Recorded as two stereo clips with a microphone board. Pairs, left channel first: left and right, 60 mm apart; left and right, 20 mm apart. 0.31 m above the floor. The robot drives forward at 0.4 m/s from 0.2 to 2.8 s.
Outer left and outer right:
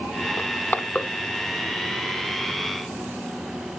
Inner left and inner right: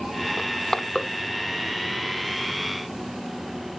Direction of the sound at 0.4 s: 35° left (ahead or behind).